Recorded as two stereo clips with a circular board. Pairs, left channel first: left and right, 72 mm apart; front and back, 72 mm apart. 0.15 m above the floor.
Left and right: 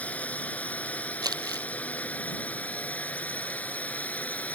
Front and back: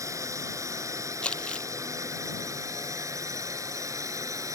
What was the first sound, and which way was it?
A drone, 155° left.